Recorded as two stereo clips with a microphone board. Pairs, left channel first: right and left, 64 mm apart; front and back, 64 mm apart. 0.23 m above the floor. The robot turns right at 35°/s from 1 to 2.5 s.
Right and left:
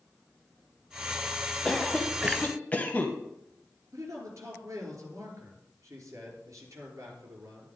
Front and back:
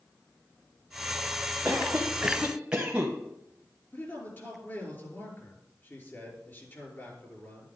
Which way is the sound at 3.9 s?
55° left.